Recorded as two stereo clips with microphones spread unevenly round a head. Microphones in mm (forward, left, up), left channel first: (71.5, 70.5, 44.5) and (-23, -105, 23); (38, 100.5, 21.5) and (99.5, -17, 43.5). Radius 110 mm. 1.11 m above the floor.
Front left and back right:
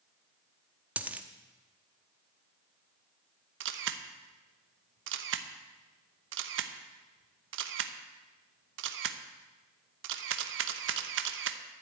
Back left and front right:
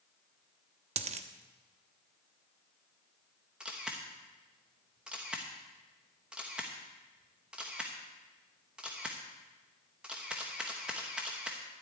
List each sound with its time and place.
1.0 s a dropped coin: 35° right, 1.0 m
3.6 s a camera shutter: 150° right, 0.9 m